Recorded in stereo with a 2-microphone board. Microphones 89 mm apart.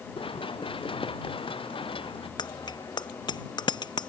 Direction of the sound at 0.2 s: 85° left.